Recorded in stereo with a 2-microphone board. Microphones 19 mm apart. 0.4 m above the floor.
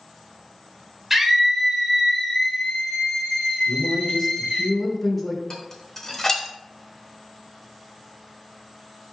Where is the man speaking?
20° left (ahead or behind), 0.9 m.